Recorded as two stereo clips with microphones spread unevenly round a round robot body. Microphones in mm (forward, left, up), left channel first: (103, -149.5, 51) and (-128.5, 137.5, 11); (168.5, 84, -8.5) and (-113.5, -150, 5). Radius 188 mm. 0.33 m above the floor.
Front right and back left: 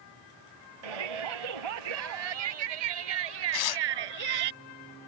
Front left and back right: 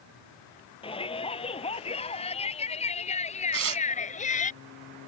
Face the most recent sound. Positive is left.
turn(degrees=-90)